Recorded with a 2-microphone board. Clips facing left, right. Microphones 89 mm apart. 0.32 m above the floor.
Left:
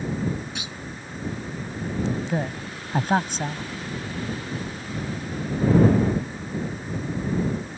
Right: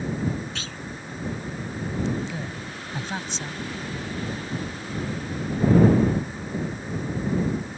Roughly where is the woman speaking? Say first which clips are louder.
Left 6 dB; left.